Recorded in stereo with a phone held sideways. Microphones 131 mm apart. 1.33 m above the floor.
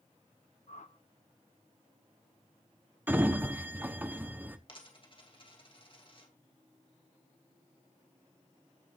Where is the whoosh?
65° left (ahead or behind), 0.8 m.